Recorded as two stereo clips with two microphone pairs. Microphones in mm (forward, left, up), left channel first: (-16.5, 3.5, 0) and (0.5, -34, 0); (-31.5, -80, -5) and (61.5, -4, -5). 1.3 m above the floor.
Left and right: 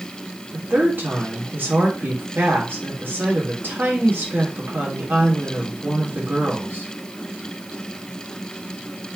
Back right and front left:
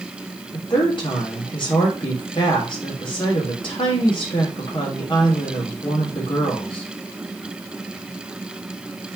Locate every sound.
0.5 s a woman speaking: 95° right, 3 m